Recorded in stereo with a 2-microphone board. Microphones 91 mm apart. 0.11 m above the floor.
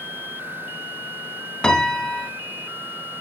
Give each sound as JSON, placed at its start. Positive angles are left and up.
{"t": 1.6, "sound": "a piano", "side_deg": 10, "distance_m": 1.0}